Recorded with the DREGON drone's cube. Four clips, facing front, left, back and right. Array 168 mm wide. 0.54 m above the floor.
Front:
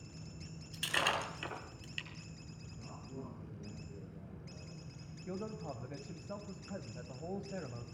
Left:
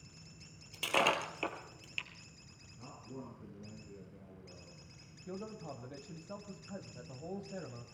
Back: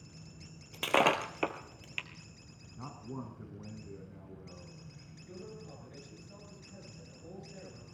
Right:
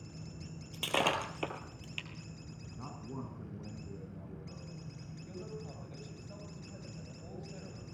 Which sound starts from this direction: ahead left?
A man speaking, at 5.3 s.